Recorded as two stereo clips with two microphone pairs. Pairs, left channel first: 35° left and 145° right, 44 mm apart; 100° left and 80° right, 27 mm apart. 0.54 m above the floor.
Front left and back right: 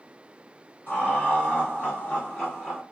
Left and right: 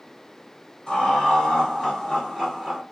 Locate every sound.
0.9 s laughter: 50° left, 1.8 m; by 2.8 s 15° right, 1.4 m